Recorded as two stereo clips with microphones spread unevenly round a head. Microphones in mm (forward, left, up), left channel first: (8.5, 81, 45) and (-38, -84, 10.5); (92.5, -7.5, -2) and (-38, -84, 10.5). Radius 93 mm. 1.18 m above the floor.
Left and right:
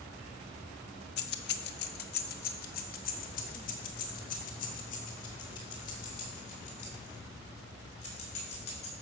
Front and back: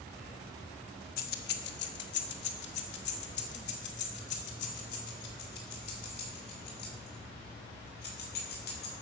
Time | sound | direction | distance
1.2 | keys jangling | 65° left | 0.7 m